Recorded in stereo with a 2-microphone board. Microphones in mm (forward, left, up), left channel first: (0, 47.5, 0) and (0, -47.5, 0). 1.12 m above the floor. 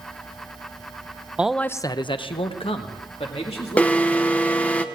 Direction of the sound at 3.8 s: 15° left (ahead or behind).